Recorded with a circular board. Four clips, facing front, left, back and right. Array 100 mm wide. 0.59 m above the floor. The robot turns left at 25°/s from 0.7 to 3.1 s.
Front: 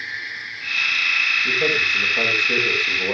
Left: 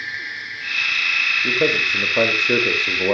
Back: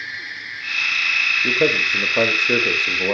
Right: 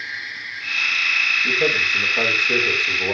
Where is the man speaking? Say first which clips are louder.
Left 2 dB, back 5 dB; 150° left, 2.5 m; by 3.1 s 110° left, 2.5 m.